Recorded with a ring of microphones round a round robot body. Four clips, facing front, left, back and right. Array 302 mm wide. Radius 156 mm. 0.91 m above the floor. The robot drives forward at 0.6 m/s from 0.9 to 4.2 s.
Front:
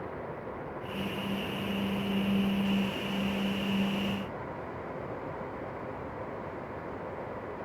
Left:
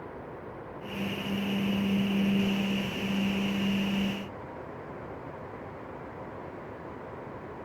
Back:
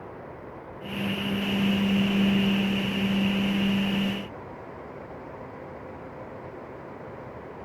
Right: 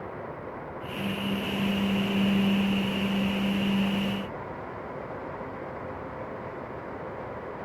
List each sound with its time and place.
Only background noise.